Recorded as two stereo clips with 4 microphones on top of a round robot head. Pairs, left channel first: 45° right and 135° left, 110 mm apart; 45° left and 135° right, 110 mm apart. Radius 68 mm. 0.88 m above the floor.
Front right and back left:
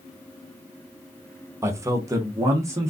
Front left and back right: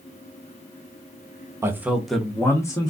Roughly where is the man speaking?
Behind.